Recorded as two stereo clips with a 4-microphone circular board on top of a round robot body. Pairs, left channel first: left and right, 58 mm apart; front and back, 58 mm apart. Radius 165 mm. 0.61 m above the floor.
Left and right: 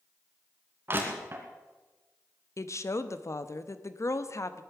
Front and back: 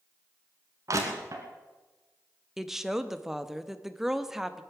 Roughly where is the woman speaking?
Left.